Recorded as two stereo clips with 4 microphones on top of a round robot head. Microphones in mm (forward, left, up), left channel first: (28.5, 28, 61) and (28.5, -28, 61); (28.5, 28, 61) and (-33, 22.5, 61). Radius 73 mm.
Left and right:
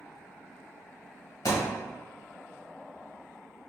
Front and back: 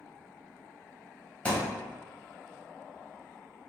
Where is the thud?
75° left, 1.3 m.